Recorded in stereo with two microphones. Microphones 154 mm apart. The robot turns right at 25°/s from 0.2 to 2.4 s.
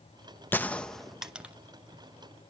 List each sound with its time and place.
0.5 s a gunshot: 15° left (ahead or behind), 0.8 m; by 1.5 s 10° right (ahead or behind), 0.8 m